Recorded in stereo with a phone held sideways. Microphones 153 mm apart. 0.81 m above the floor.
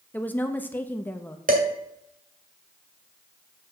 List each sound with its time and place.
0.1 s a woman speaking: 10° left (ahead or behind), 0.8 m
1.5 s dishes clattering: 60° right (ahead or behind), 2 m